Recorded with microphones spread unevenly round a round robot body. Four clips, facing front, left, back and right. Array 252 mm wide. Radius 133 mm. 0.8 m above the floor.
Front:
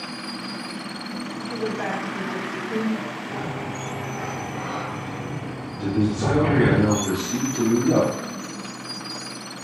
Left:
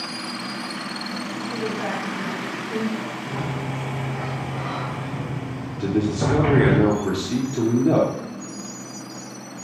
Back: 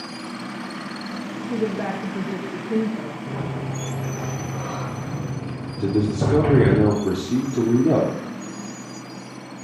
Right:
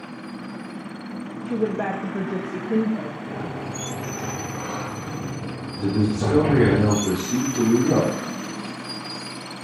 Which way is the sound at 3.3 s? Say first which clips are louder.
Left 2 dB, even; 165° left.